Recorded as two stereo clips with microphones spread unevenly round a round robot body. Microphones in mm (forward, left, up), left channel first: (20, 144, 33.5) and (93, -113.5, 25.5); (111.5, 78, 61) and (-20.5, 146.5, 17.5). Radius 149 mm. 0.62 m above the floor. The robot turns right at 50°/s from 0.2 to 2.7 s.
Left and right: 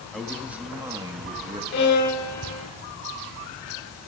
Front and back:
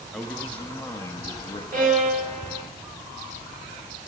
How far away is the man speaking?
About 0.5 m.